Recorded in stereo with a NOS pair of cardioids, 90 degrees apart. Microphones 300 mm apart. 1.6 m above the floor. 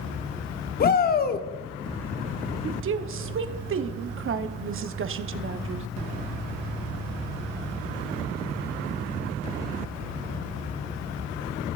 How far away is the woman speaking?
About 0.8 m.